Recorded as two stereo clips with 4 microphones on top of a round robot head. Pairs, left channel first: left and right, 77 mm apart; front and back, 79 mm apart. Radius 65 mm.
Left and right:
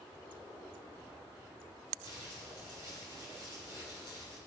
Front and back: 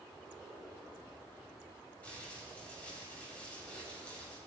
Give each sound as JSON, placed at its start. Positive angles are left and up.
{"t": 2.0, "sound": "crumpling", "azimuth_deg": 70, "distance_m": 7.0}